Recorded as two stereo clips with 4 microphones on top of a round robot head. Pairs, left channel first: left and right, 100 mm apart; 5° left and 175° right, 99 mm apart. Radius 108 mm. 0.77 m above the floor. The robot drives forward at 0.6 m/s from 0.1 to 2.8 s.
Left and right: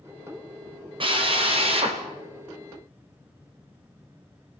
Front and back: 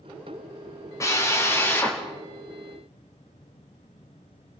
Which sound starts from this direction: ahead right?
A drill, at 1.0 s.